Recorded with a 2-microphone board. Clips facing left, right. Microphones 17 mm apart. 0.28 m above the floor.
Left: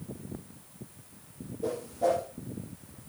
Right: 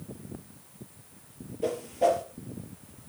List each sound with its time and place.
1.6 s a whoosh: 60° right (ahead or behind), 3 m